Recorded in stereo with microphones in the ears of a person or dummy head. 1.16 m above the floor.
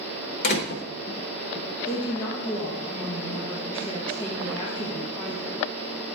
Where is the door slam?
65° left (ahead or behind), 0.8 m.